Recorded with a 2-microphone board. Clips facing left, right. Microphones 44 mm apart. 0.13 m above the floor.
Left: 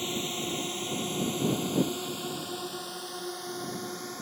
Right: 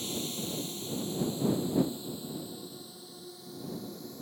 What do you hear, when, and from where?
0.0 s a drone: 45° left (ahead or behind); by 4.2 s 65° left (ahead or behind)